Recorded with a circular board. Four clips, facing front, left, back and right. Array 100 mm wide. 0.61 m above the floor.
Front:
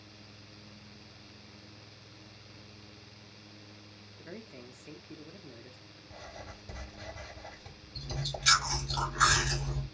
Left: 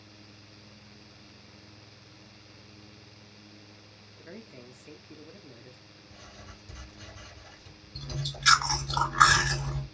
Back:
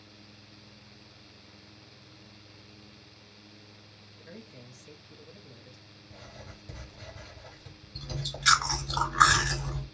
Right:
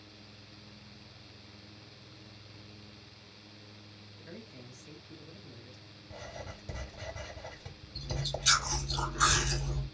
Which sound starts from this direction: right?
Writing, at 6.1 s.